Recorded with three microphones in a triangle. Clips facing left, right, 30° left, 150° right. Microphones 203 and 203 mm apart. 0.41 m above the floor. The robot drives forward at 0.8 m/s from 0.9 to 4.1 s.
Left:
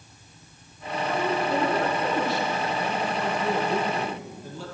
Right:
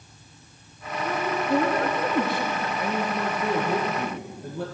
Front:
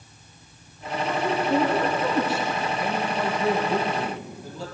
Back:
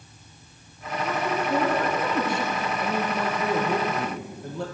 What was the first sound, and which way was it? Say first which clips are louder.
A woman speaking: even, front 2 dB; 45° right.